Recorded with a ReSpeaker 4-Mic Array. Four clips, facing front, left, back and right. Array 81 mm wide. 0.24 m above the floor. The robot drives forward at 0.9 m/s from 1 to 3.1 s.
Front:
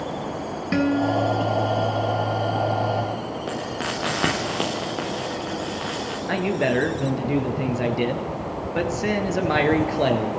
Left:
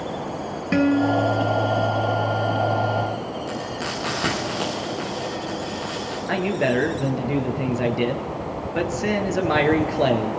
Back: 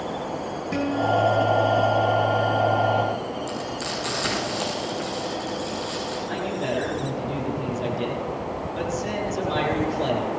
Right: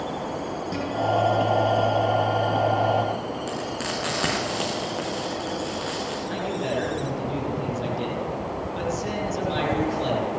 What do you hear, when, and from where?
0.7 s a guitar: 60° left, 3 m; by 2.2 s 80° left, 2.5 m
3.5 s frying: 10° right, 8.5 m
6.3 s a man speaking: 50° left, 4.5 m